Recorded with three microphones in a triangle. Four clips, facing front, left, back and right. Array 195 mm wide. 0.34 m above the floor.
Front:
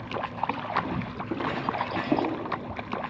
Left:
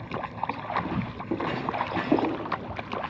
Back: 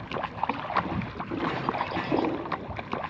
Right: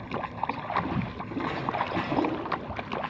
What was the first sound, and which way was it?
Footsteps, 60° left.